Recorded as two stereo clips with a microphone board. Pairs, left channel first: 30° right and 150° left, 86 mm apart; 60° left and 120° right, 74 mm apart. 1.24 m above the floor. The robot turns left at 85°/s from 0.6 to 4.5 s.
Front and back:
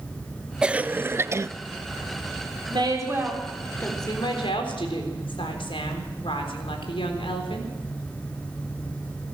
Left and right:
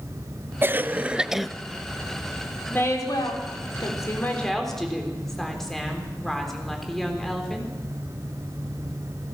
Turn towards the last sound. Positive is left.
turn(degrees=-25)